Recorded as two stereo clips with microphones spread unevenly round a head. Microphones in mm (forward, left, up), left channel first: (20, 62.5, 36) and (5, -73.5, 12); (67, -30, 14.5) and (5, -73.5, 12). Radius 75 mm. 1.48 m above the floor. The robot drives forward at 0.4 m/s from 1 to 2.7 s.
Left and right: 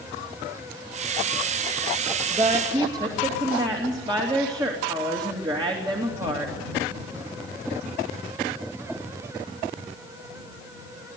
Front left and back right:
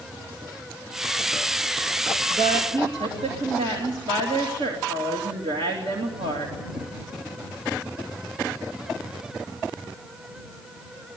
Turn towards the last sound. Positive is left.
turn(degrees=-160)